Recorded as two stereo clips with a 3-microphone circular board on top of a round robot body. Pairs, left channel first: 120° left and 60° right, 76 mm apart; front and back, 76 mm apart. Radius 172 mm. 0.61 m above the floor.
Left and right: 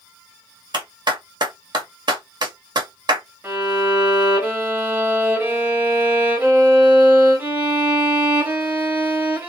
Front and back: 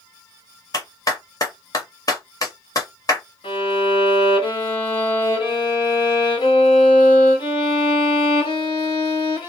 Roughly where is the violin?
Ahead.